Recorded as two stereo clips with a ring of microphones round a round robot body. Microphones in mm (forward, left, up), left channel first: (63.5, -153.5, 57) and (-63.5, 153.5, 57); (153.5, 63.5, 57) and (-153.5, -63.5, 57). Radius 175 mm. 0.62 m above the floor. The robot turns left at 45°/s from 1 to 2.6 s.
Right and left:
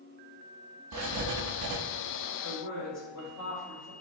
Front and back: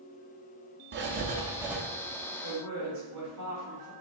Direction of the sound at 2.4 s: 115° right.